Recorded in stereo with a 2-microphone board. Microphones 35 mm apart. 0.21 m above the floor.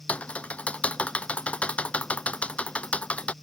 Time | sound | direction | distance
0.1 | typing on a keyboard | 35° left (ahead or behind) | ?